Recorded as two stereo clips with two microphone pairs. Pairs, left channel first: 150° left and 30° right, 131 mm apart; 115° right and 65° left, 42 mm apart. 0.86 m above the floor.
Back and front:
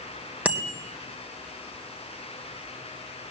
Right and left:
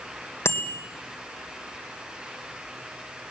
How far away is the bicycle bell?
About 3 m.